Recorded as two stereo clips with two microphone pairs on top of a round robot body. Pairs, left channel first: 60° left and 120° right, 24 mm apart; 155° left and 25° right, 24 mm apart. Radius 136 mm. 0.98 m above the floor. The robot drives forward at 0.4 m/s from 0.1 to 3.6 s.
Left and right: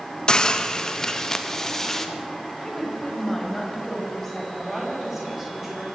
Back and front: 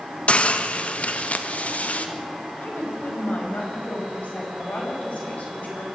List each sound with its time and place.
0.3 s a hiss: 125° left, 1.5 m; by 2.1 s 140° left, 1.9 m
2.6 s a woman speaking: 140° left, 5 m; by 4.5 s 145° left, 5.5 m
4.6 s a woman speaking: 165° left, 7 m